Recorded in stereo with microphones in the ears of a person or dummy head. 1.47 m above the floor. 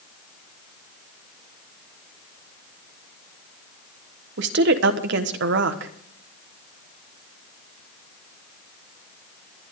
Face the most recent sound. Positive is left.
turn(degrees=-65)  # may be behind; listen again after turning